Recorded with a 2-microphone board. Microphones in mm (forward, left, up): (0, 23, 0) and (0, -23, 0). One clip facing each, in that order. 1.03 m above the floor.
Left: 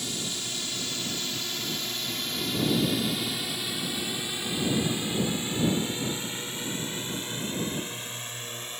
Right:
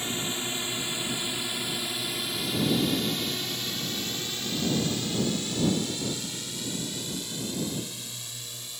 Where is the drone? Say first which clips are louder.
Right 3 dB; 25° right (ahead or behind); by 8.8 s 45° left (ahead or behind).